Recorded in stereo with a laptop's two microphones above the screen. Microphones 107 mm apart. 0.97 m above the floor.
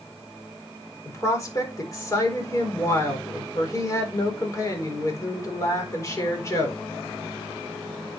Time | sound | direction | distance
1.1 | a woman speaking | 30° left (ahead or behind) | 3.5 m